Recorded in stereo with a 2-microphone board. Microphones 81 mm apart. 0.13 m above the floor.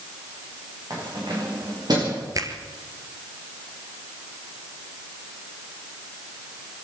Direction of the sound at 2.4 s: 45° right (ahead or behind).